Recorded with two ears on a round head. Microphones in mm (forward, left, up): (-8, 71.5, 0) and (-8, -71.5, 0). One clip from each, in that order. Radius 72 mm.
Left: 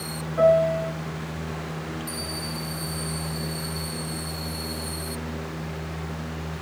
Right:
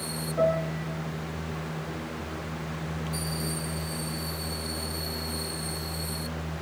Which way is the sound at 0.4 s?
25° left (ahead or behind).